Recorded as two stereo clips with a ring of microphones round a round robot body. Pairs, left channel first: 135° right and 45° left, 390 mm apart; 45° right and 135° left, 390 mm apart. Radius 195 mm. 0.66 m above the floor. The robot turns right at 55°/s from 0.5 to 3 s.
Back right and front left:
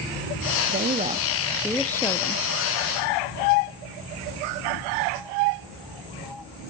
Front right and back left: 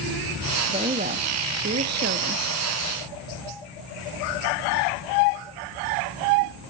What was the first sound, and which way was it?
A woman speaking, 75° left.